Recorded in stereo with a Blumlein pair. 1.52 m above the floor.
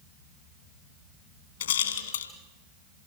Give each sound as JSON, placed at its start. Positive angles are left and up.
{"t": 1.6, "sound": "a rattle", "azimuth_deg": 65, "distance_m": 2.5}